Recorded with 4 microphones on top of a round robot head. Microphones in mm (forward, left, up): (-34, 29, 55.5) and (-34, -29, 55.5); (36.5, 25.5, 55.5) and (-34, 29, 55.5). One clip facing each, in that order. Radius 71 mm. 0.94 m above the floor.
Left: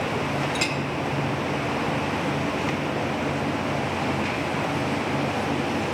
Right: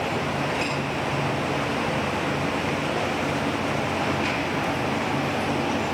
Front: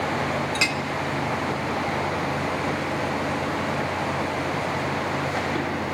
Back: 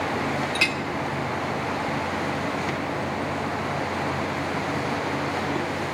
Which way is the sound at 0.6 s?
65° left.